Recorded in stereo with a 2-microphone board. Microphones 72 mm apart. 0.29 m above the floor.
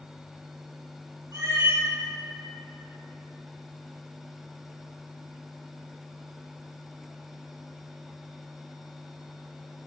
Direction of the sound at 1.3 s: 60° right (ahead or behind).